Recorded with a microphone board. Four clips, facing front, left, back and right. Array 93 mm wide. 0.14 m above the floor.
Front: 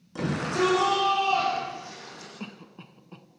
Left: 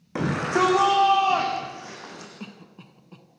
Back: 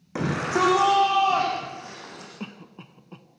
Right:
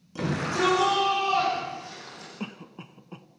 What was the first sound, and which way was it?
A shout, 125° left.